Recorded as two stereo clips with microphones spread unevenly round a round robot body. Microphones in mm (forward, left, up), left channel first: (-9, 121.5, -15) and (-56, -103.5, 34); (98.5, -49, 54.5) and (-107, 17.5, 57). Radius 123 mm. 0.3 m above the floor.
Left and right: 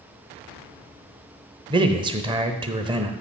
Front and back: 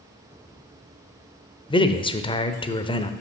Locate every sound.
1.7 s a man speaking: 30° right, 0.9 m